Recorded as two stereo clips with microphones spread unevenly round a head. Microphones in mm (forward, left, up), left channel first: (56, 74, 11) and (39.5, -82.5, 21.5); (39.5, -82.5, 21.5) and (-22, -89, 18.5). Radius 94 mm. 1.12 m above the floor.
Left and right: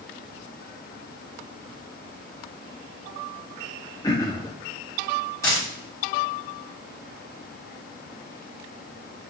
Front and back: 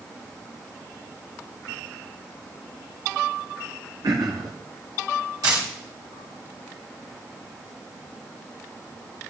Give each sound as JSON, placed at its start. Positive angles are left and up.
{"t": 4.0, "sound": "throat clearing", "azimuth_deg": 155, "distance_m": 0.8}
{"t": 5.4, "sound": "a dropped coin", "azimuth_deg": 160, "distance_m": 3.0}